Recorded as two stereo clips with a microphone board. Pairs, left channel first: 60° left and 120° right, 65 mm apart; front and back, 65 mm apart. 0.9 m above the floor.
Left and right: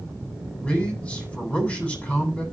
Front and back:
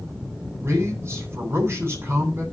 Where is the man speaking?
130° left, 8.5 m.